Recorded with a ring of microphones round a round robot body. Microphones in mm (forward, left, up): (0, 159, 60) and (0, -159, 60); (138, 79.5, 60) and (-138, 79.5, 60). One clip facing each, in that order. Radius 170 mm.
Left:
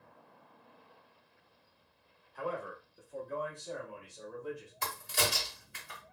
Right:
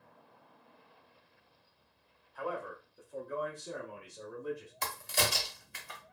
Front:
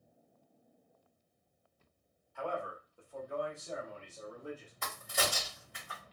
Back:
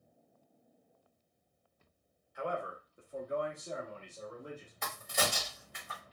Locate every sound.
2.4 s a man speaking: 120° left, 0.9 m; by 4.7 s 105° right, 1.3 m
4.8 s a crack: 85° right, 1.2 m